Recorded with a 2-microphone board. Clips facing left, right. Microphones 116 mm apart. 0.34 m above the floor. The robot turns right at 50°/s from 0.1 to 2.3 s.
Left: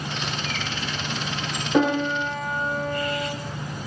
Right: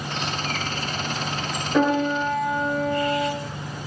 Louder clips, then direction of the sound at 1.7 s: Right 1 dB; 20° left (ahead or behind).